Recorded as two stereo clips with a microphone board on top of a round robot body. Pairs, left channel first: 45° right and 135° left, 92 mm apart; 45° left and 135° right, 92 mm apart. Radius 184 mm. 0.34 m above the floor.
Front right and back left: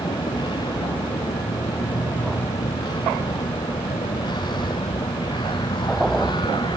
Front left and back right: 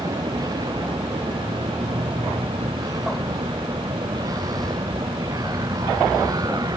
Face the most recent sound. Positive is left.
turn(degrees=-85)